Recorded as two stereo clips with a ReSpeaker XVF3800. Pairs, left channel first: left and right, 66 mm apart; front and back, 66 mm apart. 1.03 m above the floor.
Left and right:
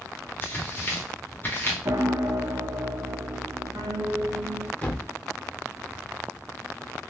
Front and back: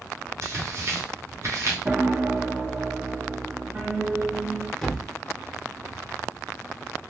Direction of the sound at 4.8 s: 75° left.